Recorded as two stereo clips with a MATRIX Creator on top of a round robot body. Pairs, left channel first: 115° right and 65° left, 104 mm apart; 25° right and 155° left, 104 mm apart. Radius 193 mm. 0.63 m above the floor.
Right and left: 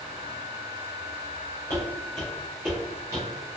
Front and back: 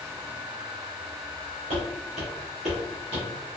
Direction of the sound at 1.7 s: Straight behind.